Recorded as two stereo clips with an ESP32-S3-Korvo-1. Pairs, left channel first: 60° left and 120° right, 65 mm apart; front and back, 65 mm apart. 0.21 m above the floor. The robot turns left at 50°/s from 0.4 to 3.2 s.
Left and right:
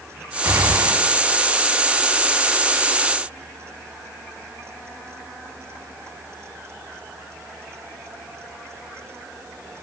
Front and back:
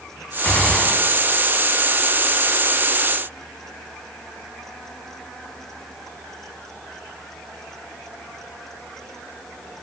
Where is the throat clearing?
I don't hear throat clearing.